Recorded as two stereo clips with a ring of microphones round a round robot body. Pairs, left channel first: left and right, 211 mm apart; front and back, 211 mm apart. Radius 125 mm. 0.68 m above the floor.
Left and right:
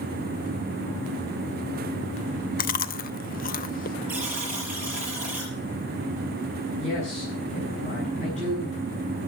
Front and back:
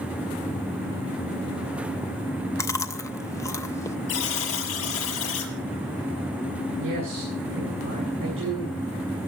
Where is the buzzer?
5° right, 6 m.